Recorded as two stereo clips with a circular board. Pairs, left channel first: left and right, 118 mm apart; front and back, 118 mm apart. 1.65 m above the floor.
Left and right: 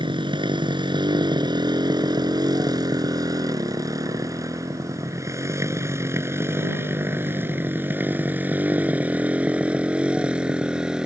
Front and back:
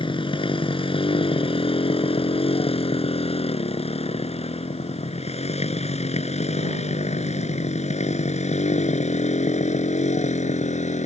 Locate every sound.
0.0 s a motorcycle: 45° right; by 11.1 s 5° right